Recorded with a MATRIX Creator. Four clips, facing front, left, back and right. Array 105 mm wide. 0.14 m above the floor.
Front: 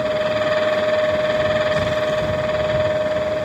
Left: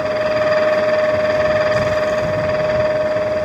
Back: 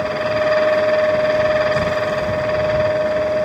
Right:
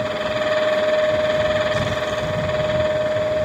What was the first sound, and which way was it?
Only background noise.